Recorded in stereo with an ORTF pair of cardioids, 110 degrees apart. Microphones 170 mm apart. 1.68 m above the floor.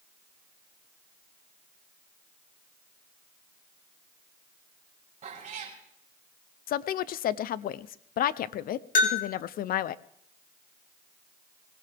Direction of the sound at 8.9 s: 50° left.